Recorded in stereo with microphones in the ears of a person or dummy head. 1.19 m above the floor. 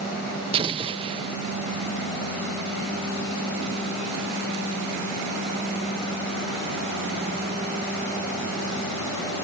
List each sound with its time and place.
0.5 s an explosion: 25° right (ahead or behind)